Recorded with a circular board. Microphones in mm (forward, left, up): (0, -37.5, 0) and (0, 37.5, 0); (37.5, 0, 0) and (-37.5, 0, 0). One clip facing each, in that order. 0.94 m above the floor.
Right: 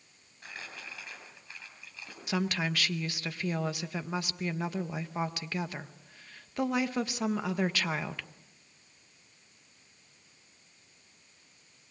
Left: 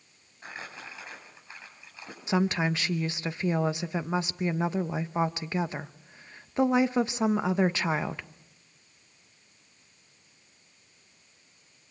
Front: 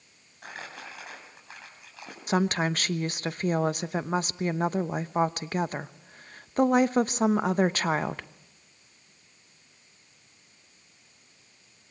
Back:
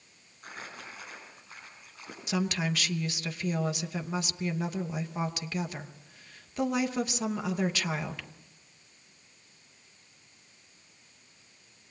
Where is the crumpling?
25° left, 8 m.